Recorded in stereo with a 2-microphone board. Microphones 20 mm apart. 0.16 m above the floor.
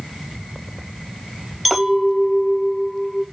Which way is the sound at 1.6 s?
Centre (ahead or behind).